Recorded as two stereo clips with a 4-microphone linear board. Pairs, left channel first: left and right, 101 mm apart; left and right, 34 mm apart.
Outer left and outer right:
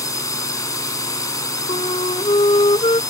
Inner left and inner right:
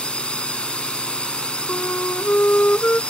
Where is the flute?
65° left (ahead or behind).